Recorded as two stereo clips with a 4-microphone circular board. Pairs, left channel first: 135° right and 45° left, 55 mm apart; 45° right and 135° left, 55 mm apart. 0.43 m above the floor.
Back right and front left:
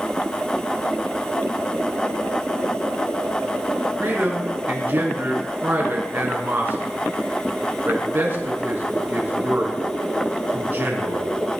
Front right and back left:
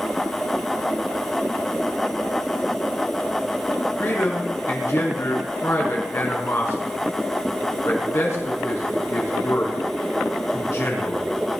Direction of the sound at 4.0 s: 10° right.